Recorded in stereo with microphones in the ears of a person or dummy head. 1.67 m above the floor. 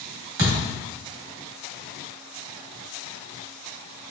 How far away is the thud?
About 1.5 m.